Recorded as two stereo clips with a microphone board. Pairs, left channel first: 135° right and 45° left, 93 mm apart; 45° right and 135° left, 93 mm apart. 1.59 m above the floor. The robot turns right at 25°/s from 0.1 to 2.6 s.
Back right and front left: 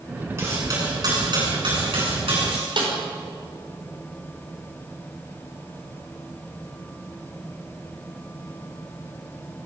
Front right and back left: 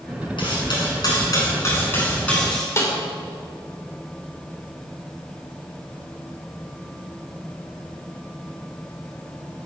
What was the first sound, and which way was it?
Cutlery clinking, 15° right.